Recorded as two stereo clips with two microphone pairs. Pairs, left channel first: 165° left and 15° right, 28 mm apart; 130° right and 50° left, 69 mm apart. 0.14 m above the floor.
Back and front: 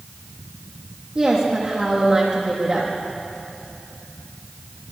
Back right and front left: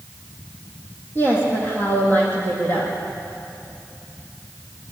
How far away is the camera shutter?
I don't hear a camera shutter.